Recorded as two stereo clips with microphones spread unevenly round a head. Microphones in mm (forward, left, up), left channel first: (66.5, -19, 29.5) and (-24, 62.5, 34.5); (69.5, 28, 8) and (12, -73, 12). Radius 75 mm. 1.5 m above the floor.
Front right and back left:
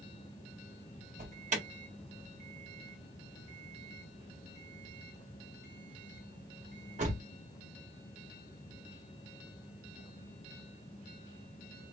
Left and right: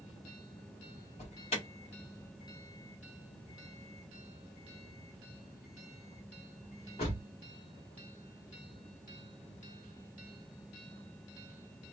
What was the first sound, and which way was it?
An alarm, 110° left.